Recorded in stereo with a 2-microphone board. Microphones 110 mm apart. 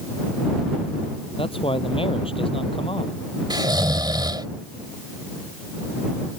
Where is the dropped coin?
No dropped coin in this recording.